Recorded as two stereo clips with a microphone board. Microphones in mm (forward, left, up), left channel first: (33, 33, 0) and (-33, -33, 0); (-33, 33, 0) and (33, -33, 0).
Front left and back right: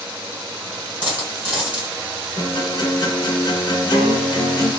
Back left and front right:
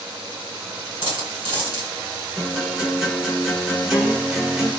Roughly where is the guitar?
Ahead left.